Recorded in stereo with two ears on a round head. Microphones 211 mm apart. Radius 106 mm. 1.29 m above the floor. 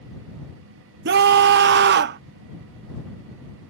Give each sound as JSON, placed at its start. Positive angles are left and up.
{"t": 1.1, "sound": "a scream", "side_deg": -45}